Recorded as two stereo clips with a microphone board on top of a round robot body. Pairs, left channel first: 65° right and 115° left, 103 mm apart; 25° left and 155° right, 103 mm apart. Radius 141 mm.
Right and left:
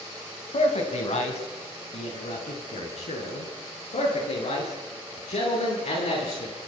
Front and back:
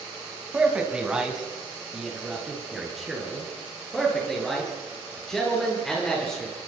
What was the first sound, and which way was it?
A man speaking, 80° right.